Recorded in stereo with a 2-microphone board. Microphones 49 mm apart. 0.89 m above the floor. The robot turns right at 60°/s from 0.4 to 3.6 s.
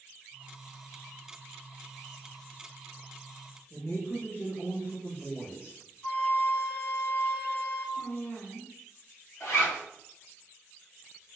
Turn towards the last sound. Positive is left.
turn(degrees=85)